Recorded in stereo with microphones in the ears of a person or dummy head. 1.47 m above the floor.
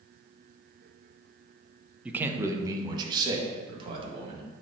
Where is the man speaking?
5° right (ahead or behind), 0.6 m; by 4.5 s 35° right (ahead or behind), 2 m.